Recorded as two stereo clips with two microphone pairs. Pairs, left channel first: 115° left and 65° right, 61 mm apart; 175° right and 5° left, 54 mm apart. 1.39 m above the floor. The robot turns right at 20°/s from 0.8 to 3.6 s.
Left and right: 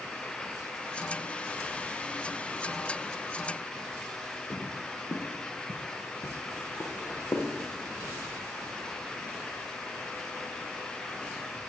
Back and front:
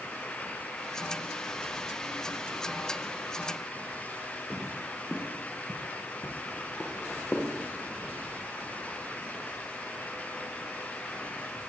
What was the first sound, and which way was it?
Footsteps, 70° left.